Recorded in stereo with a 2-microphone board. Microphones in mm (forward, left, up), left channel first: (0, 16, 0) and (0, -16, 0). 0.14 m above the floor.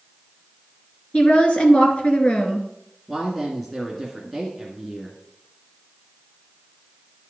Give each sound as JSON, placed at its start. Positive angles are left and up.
{"t": 1.1, "sound": "a woman speaking", "side_deg": 40, "distance_m": 2.5}
{"t": 3.1, "sound": "a woman speaking", "side_deg": 5, "distance_m": 1.9}